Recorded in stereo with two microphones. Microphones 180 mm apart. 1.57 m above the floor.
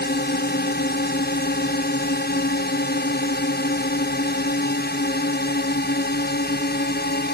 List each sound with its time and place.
0.0 s a drone: 65° left (ahead or behind)